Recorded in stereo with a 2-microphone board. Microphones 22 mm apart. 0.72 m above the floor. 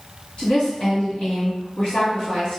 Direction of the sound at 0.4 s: 60° left (ahead or behind).